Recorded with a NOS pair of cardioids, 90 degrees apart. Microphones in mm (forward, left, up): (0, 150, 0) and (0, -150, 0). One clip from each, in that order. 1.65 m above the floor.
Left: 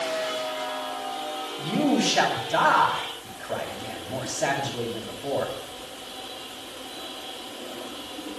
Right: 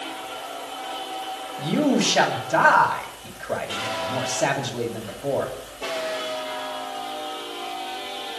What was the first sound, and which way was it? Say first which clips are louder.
A man speaking: right 2 dB; 25° right.